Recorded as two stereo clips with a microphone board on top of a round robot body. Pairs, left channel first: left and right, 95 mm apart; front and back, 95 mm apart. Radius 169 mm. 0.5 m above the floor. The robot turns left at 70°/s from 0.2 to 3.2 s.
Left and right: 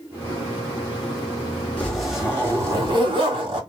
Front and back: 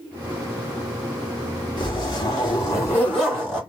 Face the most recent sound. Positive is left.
turn(degrees=-85)